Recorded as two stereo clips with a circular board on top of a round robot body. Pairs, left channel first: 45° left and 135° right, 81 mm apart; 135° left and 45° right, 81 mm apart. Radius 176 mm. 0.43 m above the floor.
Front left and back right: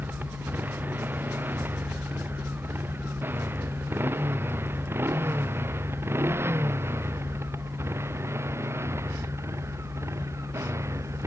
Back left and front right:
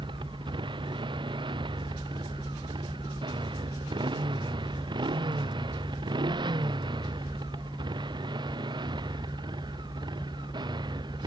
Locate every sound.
0.0 s a motorcycle: 65° right; by 11.3 s 80° right